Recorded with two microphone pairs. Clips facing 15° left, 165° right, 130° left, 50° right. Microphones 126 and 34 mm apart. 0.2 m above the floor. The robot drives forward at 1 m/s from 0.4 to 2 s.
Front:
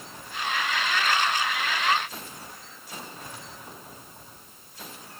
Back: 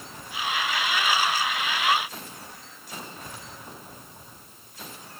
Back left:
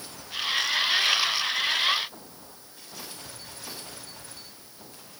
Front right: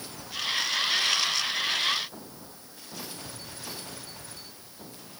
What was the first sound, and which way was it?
Only background noise.